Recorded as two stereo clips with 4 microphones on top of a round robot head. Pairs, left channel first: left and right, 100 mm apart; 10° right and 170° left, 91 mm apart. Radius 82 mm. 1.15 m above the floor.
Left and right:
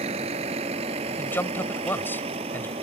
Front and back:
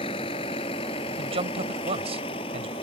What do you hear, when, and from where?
0.0 s a vehicle: 50° right
1.2 s a man speaking: 160° left